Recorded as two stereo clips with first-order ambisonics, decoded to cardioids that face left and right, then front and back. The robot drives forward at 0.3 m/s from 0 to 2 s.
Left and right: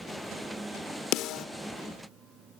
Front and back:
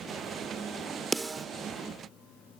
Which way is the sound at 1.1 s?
100° left.